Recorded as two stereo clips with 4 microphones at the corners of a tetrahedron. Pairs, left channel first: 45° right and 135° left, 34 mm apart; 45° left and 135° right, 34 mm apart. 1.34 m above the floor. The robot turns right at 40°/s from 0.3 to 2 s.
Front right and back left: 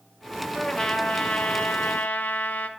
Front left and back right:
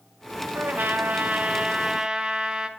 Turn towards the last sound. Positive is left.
turn(degrees=-65)